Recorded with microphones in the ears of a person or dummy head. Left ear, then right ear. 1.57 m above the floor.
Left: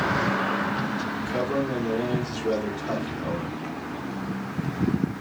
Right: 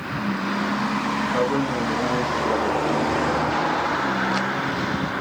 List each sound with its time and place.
1.2 s a man speaking: centre (ahead or behind), 1.6 m